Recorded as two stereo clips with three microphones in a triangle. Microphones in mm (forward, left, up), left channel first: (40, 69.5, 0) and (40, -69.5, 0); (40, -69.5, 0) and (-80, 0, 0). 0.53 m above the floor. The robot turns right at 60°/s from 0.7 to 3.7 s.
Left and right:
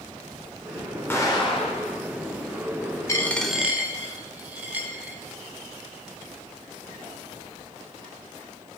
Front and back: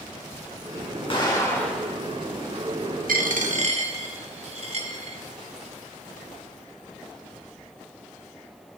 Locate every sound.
1.1 s an explosion: 15° left, 0.8 m; by 2.0 s 70° left, 0.8 m
3.1 s a dropped coin: 155° left, 0.5 m; by 5.2 s 165° right, 0.5 m